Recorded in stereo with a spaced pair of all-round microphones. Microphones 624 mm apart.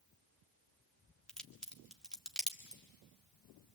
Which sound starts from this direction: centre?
A crack, at 1.3 s.